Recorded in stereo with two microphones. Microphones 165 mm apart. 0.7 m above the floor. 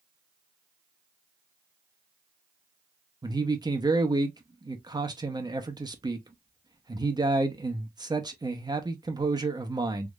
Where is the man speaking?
25° right (ahead or behind), 0.7 m.